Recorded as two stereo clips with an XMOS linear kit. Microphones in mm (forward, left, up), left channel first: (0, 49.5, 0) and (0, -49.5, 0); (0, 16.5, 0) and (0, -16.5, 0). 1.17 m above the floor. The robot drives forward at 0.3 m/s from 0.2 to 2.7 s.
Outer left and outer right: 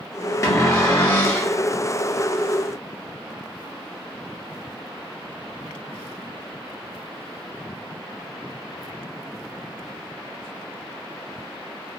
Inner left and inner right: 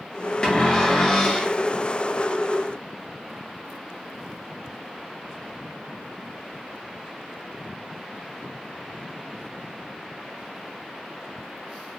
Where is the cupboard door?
35° left (ahead or behind), 0.7 m; by 1.5 s 25° left (ahead or behind), 1.0 m.